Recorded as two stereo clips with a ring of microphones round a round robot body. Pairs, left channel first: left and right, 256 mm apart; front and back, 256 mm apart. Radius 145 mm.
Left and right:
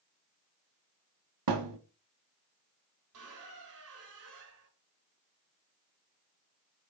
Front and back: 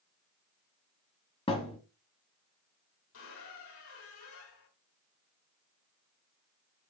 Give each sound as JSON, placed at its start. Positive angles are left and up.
{"t": 1.5, "sound": "a thud", "azimuth_deg": -75, "distance_m": 1.4}
{"t": 3.1, "sound": "a squeak", "azimuth_deg": -50, "distance_m": 2.5}